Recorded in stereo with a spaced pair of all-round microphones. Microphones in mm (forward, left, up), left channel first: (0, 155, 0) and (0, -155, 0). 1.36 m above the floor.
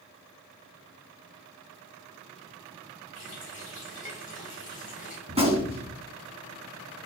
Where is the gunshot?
20° right (ahead or behind), 3 m.